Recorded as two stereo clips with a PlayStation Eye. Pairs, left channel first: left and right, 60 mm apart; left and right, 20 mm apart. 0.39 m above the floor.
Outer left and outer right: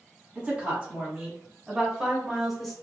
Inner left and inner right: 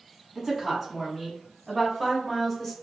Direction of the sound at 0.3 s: 25° right (ahead or behind).